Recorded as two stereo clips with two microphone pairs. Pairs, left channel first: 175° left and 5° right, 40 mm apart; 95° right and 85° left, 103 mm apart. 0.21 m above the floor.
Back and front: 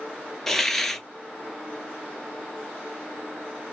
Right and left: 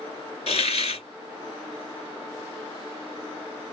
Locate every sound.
0.5 s a hiss: 105° right, 1.0 m